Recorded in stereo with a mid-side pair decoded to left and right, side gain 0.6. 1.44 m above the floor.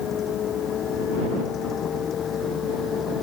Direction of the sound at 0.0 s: 45° left.